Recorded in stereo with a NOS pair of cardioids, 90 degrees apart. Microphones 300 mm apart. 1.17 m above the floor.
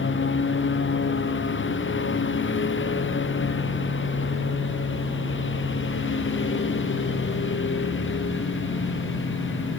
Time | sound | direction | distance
0.0 | a lawn mower | 40° left | ?